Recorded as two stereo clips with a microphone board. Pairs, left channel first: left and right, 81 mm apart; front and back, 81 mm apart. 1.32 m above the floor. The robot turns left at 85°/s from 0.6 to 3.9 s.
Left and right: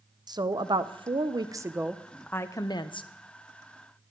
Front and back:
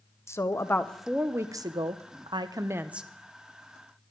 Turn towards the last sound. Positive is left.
turn(degrees=25)